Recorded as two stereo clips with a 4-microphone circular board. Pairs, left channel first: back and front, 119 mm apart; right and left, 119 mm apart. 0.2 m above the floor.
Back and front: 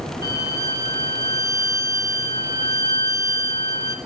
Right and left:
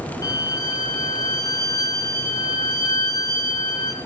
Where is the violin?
50° right, 1.8 m.